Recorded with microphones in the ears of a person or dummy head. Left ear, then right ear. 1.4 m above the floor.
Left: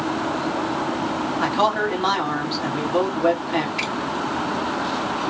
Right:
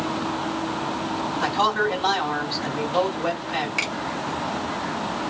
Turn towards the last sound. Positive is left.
turn(degrees=-40)  # may be behind; listen again after turning